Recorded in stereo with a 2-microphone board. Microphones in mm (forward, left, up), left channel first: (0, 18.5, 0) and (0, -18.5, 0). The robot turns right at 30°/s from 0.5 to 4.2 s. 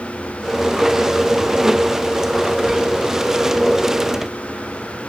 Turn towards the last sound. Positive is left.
No sound to turn to.